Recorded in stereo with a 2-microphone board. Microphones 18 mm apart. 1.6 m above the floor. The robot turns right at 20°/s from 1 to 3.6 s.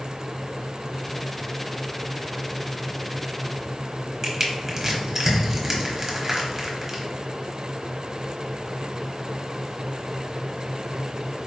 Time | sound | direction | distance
4.2 | crushing | 20° right (ahead or behind) | 0.8 m